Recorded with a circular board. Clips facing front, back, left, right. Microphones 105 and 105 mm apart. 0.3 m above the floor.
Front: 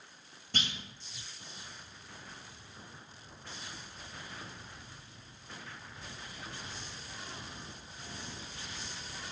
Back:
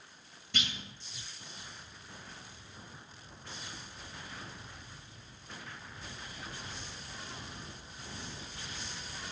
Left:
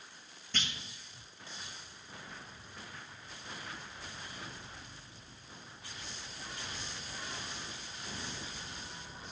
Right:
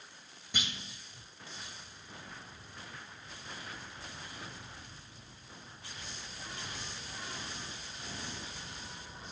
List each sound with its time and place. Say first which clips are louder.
0.5 s a clunk: even, even; 20° right, 0.9 m